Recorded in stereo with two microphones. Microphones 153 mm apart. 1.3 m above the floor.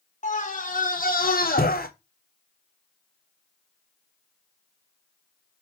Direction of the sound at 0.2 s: 50° left (ahead or behind).